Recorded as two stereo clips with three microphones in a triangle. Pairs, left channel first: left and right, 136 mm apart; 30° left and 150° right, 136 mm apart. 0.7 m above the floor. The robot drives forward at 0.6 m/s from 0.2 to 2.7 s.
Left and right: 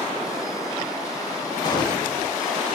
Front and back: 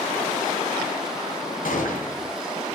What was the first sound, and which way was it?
A gunshot, 30° left.